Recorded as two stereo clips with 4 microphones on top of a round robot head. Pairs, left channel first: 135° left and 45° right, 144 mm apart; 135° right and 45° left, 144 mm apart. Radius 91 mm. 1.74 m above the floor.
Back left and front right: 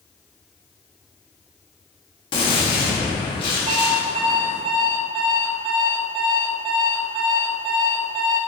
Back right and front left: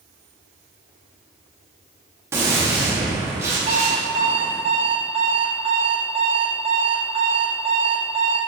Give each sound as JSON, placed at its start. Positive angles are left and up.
{"t": 2.3, "sound": "a gunshot", "azimuth_deg": 105, "distance_m": 1.2}
{"t": 3.7, "sound": "an alarm clock", "azimuth_deg": 5, "distance_m": 1.4}